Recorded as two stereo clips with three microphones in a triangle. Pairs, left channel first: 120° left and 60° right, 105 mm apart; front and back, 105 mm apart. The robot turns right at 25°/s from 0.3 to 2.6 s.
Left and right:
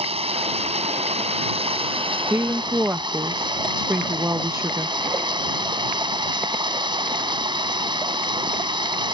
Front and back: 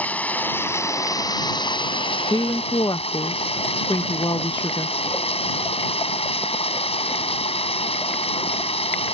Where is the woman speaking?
10° right; by 5.0 s 5° right.